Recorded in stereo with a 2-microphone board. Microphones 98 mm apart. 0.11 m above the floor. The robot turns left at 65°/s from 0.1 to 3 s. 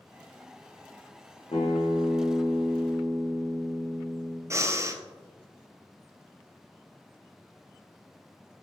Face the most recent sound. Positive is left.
turn(degrees=-30)  # may be behind; listen again after turning